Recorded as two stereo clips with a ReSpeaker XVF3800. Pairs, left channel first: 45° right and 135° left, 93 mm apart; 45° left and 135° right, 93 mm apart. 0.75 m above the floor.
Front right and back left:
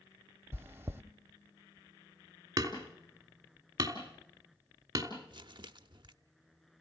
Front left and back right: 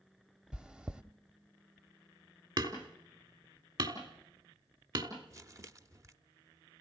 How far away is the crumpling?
About 0.7 m.